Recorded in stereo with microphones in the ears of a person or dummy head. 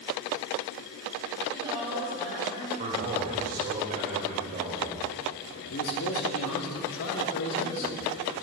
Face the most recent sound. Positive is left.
turn(degrees=80)